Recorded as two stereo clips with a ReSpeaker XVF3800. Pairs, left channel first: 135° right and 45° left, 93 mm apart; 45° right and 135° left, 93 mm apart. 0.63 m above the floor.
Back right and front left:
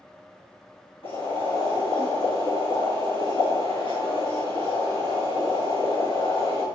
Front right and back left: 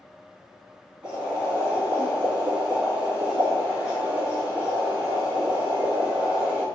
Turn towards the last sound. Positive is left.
turn(degrees=-145)